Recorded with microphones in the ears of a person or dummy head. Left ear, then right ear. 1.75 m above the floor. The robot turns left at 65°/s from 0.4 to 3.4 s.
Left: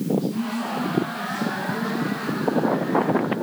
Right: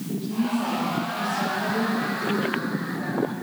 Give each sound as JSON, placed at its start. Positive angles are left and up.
{"t": 0.1, "sound": "a woman speaking", "azimuth_deg": 40, "distance_m": 4.0}